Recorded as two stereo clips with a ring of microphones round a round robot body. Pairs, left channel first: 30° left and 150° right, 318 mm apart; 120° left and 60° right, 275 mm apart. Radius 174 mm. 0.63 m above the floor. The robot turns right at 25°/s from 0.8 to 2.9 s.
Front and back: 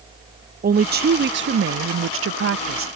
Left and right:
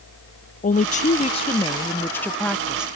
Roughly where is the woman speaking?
Behind.